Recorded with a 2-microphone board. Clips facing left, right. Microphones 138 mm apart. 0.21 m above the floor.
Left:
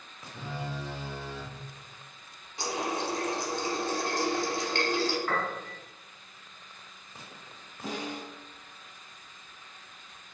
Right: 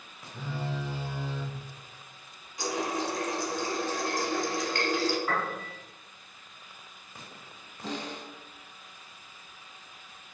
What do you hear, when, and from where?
0.3 s a phone buzzing: 10° right (ahead or behind), 1.6 m
2.6 s a running tap: 30° left (ahead or behind), 0.8 m
5.3 s a piano: 10° right (ahead or behind), 1.4 m
7.8 s a snare drum: 10° left (ahead or behind), 0.8 m